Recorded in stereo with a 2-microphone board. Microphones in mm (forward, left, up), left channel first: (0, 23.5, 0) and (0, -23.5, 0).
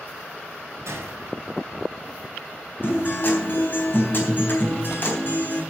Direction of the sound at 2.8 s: 50° left (ahead or behind).